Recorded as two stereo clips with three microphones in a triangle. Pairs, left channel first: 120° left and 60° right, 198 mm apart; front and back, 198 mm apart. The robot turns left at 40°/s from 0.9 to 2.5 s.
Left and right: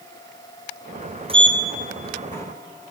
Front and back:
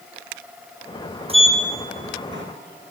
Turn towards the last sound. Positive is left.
turn(degrees=-170)